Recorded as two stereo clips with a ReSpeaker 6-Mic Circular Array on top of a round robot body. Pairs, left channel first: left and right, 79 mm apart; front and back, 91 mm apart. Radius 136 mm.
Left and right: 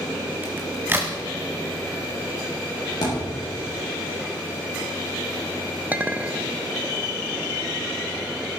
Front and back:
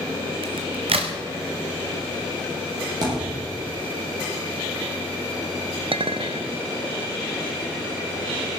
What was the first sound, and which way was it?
A crack, 155° right.